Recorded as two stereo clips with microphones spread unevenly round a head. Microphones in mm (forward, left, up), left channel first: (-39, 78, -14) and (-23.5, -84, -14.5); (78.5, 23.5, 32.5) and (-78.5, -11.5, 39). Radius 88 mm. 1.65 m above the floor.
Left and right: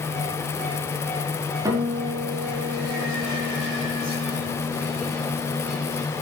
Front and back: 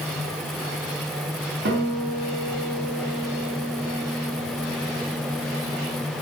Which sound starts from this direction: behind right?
A guitar, at 1.6 s.